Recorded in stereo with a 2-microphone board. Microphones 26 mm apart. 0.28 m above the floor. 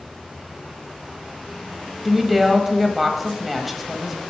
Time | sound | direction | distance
2.0 | a woman speaking | 5° right (ahead or behind) | 1.2 m